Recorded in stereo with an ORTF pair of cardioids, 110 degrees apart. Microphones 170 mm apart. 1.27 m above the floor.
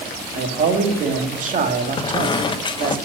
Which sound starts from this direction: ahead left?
A squeak, at 2.0 s.